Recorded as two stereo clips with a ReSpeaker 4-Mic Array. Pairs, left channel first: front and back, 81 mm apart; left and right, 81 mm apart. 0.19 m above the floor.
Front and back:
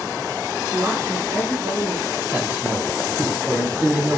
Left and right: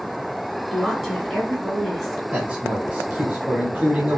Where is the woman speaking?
Straight behind, 1.7 m.